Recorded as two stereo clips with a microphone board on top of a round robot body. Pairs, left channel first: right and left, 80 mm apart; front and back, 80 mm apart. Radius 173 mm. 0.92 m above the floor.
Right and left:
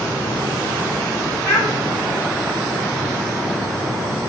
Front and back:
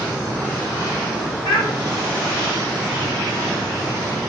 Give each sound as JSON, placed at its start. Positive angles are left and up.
{"t": 1.4, "sound": "a child speaking", "azimuth_deg": -15, "distance_m": 4.5}